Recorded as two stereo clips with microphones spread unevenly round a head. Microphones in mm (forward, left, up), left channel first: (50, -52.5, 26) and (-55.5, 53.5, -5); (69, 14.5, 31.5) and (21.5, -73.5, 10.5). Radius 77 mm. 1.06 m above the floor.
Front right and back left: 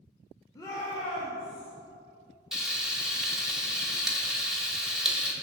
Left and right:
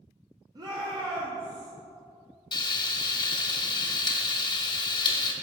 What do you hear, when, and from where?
0.6 s a shout: 120° right, 1.0 m; by 1.7 s 105° right, 2.0 m
2.5 s frying: 40° left, 0.9 m